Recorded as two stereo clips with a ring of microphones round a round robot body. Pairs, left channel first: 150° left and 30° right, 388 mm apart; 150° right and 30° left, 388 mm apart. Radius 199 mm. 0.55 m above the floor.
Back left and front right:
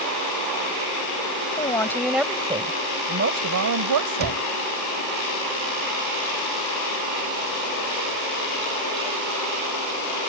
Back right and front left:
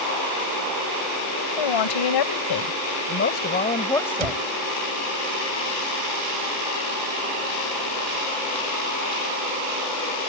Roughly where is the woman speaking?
Behind right.